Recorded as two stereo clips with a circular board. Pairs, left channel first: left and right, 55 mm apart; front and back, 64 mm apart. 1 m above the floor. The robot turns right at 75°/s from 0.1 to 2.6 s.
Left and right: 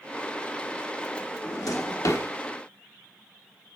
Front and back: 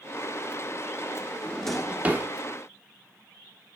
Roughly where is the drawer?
Ahead left.